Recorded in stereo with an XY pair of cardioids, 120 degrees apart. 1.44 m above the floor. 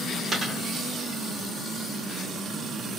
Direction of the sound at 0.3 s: 25° right.